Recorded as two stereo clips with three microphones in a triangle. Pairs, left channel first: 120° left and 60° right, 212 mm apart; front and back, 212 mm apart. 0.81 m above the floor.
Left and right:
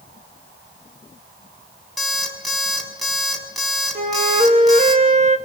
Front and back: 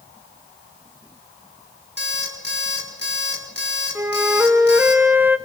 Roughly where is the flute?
Right.